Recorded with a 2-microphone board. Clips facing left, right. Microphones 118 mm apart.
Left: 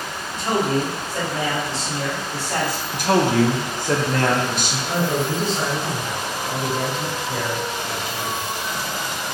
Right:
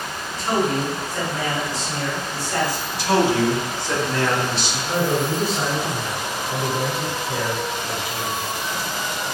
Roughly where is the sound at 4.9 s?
Centre.